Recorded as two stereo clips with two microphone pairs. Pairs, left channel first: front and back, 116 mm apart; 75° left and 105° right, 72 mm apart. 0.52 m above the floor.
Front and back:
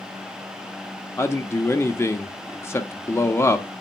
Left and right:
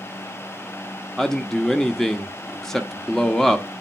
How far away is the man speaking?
About 0.7 m.